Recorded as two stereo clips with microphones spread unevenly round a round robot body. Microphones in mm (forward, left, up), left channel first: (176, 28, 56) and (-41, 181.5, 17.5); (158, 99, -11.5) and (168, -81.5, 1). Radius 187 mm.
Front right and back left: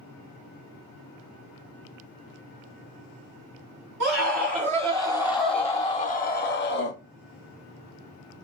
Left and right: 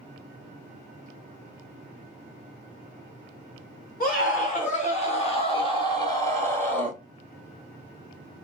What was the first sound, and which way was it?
A scream, 175° left.